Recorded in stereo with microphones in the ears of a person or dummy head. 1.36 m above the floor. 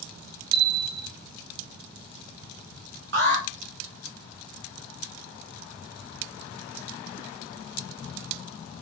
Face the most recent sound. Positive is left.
turn(degrees=-65)  # may be behind; listen again after turning